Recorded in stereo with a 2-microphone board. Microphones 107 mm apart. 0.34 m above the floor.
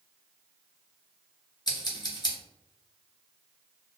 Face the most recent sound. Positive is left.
turn(degrees=40)  # may be behind; listen again after turning